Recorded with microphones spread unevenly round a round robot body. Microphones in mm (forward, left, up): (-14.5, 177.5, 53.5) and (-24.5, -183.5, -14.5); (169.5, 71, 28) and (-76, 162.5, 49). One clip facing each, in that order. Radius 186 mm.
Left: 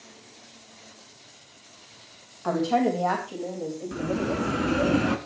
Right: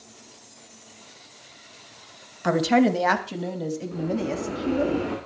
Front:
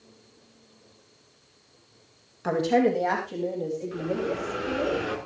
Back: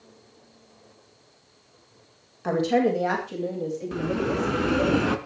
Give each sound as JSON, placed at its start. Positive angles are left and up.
{"t": 2.4, "sound": "a woman speaking", "azimuth_deg": -105, "distance_m": 2.5}
{"t": 3.9, "sound": "a bell", "azimuth_deg": 135, "distance_m": 1.8}